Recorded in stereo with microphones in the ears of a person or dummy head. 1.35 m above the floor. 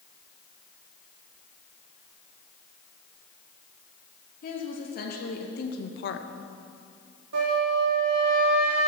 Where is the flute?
75° right (ahead or behind), 2.5 m.